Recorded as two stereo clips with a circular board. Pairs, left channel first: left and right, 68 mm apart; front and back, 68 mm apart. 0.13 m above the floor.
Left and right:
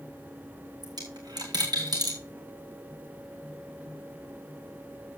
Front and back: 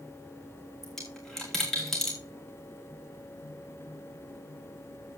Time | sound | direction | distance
0.8 | a dropped coin | 85° right | 3 m